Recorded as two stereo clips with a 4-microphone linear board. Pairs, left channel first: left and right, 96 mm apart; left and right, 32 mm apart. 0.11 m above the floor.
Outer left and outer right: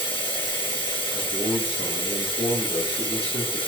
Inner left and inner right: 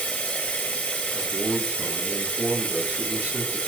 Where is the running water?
65° left (ahead or behind), 2 m.